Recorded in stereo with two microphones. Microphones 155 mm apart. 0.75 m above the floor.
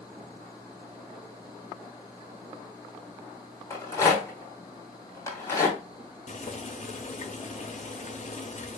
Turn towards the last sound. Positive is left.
turn(degrees=50)  # may be behind; listen again after turning